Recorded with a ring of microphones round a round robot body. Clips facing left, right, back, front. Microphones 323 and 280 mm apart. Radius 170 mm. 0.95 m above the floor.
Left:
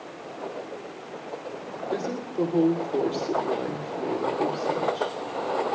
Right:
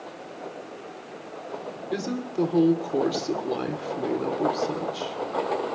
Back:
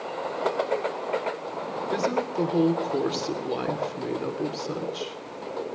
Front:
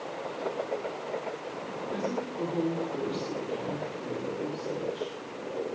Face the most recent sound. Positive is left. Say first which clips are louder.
# right 1 dB, back 6 dB
turn(degrees=-155)